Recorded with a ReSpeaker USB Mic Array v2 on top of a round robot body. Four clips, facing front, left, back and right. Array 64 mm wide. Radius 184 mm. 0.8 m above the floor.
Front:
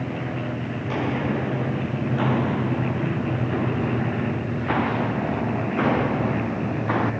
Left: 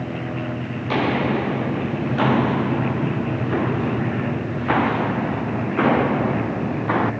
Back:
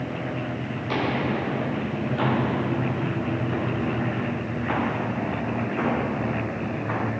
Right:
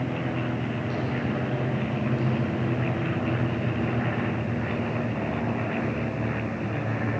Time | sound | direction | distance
0.8 | footsteps | 100° left | ?